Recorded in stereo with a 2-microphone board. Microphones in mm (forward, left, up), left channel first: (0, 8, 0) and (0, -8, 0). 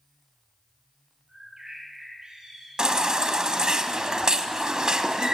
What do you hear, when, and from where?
1.3 s a bird: 50° right (ahead or behind), 5.5 m
2.8 s a baby crying: 45° right (ahead or behind), 0.7 m